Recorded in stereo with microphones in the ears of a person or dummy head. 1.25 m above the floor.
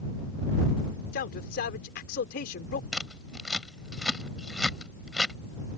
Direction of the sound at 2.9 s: Centre (ahead or behind).